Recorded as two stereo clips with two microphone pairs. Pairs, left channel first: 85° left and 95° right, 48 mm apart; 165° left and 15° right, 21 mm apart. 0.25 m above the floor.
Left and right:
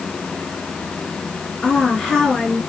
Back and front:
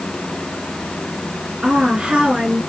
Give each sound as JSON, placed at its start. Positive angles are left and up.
{"t": 1.6, "sound": "a woman speaking", "azimuth_deg": 5, "distance_m": 3.0}